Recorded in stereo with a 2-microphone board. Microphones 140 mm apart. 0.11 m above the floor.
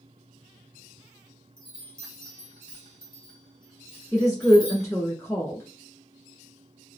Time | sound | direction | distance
1.6 | a chime | 30° left (ahead or behind) | 1.2 m
4.1 | a woman speaking | 20° left (ahead or behind) | 1.1 m